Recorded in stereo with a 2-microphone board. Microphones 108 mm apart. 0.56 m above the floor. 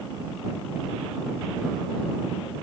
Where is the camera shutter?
I don't hear a camera shutter.